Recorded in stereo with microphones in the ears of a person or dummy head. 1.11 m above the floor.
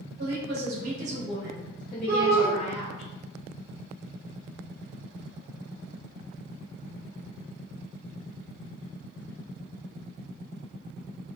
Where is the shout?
45° right (ahead or behind), 1.1 m.